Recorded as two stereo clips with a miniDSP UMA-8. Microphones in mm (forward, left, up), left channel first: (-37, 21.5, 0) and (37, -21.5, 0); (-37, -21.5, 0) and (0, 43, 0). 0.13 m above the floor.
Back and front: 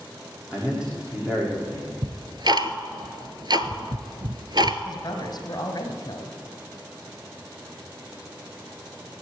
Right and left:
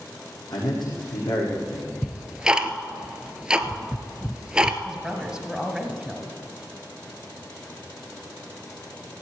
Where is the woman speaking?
140° left, 2.0 m.